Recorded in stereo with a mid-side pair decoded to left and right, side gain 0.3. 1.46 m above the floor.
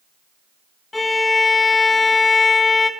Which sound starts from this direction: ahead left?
A violin, at 0.9 s.